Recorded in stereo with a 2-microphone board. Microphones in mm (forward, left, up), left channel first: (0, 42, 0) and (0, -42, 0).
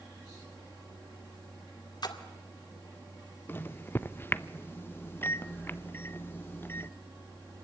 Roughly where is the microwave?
Left.